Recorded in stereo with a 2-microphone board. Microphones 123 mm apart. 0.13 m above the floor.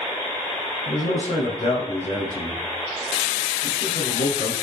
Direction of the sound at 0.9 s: 65° left (ahead or behind).